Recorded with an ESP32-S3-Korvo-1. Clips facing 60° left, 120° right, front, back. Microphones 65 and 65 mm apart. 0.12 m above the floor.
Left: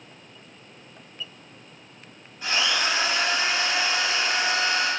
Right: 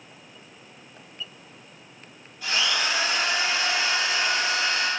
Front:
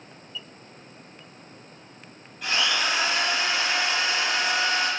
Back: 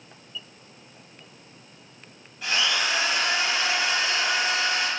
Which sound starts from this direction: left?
A drill, at 2.4 s.